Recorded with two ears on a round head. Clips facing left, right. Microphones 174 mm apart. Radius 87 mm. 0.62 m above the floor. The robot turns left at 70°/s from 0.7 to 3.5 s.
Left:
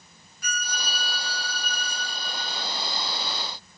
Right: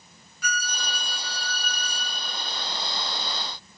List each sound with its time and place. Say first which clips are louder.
0.4 s a violin: right 2 dB; 65° right, 2 m; by 2.6 s 160° left, 2 m